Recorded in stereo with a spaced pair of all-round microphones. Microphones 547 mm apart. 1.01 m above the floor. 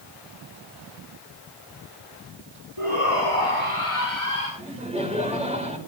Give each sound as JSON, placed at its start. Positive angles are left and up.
{"t": 2.8, "sound": "a shout", "side_deg": 65, "distance_m": 6.5}
{"t": 4.6, "sound": "laughter", "side_deg": -10, "distance_m": 4.0}